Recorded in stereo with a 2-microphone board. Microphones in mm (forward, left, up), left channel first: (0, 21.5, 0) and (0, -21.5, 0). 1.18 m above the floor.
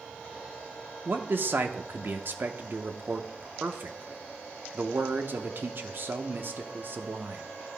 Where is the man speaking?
55° right (ahead or behind), 0.8 m.